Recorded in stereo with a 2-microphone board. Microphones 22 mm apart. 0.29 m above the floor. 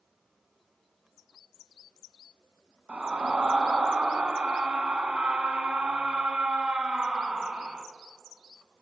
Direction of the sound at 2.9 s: 65° right (ahead or behind).